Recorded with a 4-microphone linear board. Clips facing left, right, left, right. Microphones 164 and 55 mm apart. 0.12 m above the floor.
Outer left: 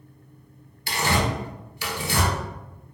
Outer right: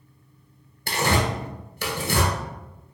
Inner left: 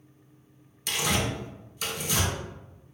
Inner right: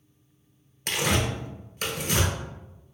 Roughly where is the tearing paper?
Right.